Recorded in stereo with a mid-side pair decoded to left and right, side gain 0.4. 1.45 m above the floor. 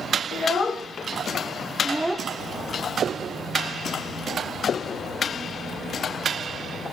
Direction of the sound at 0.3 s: 50° left.